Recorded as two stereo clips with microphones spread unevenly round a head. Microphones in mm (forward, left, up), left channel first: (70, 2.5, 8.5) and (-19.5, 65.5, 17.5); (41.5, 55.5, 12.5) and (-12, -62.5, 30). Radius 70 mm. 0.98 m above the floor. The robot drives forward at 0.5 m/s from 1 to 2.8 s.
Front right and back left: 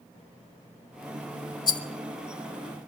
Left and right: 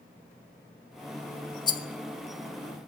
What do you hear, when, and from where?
1.7 s a rattle: 10° left, 1.4 m